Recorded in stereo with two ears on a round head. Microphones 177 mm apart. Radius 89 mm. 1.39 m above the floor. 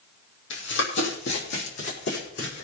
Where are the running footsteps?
65° left (ahead or behind), 3.5 m; by 2.6 s 55° left (ahead or behind), 5.5 m.